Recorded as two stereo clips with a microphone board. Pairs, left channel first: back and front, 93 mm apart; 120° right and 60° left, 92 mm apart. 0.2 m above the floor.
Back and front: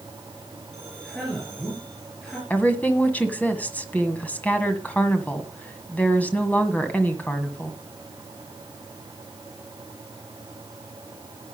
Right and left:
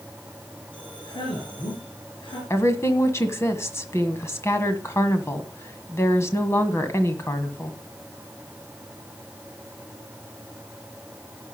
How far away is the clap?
I don't hear a clap.